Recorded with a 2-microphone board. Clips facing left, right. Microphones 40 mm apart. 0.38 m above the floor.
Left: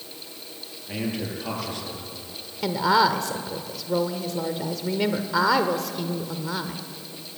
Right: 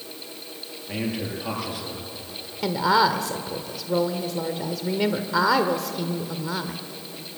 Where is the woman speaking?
Centre (ahead or behind), 1.2 m.